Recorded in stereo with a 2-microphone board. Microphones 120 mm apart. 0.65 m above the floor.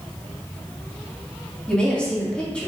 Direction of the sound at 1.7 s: 10° left (ahead or behind).